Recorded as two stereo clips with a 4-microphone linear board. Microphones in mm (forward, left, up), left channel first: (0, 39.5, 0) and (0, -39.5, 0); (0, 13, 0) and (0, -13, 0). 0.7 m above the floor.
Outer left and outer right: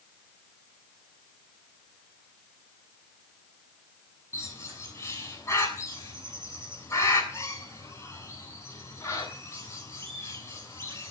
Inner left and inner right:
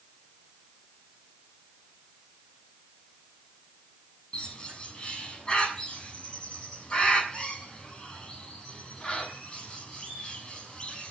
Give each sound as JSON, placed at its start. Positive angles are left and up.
{"t": 4.3, "sound": "a bird", "side_deg": 35, "distance_m": 7.0}